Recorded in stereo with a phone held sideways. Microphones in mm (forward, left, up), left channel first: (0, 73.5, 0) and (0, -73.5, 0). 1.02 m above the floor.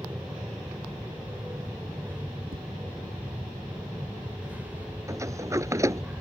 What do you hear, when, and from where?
0.0 s an aircraft: 10° right (ahead or behind)
2.5 s tapping: 85° right
5.1 s a sliding door: 20° right (ahead or behind)